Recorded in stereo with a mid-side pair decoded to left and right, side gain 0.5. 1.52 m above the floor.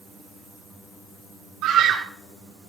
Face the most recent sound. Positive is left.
turn(degrees=-70)